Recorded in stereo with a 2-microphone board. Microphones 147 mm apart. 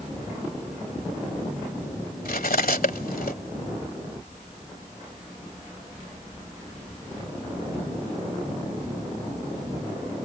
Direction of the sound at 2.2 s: 80° left.